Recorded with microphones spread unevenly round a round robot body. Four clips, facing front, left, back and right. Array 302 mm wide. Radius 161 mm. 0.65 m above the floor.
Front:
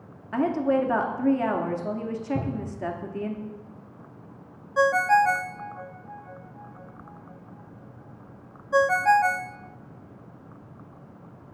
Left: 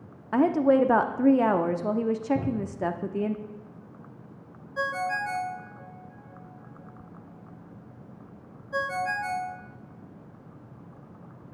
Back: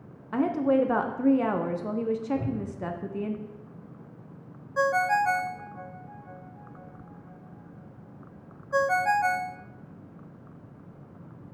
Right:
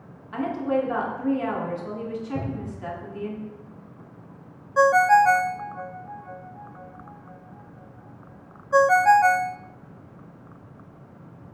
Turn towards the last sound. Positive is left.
turn(degrees=-55)